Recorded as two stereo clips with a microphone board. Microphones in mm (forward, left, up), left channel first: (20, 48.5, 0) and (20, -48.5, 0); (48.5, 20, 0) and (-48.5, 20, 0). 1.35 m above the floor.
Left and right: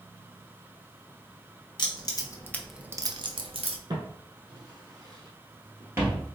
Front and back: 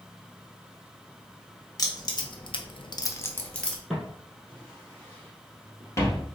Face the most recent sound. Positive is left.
turn(degrees=-35)